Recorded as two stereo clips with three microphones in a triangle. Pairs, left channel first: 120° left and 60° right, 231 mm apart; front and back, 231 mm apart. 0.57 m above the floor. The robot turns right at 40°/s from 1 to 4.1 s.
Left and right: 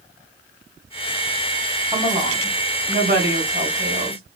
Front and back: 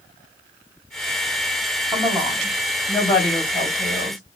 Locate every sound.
1.9 s a woman speaking: 105° right, 1.4 m; by 4.2 s 20° right, 1.4 m